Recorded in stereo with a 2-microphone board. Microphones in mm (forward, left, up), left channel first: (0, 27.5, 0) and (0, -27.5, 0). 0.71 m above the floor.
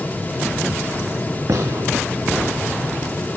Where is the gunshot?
85° right, 3.5 m.